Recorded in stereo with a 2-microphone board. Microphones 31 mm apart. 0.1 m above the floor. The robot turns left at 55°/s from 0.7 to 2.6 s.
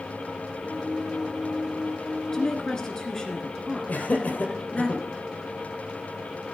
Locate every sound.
2.3 s a woman speaking: 20° left (ahead or behind), 1.5 m
3.9 s laughter: 50° left (ahead or behind), 2.5 m